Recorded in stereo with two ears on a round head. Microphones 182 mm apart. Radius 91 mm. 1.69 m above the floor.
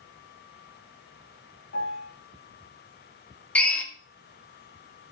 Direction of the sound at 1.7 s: 55° left (ahead or behind).